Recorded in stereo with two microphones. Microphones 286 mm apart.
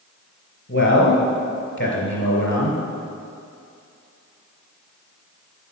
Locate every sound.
0.7 s a man speaking: 45° left (ahead or behind), 3.5 m